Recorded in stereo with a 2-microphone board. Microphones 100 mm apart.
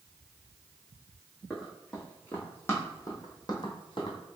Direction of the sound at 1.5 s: 5° left (ahead or behind).